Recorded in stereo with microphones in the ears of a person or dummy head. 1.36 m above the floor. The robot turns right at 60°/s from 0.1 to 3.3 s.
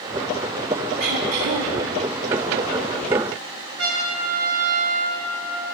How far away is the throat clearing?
About 1.0 m.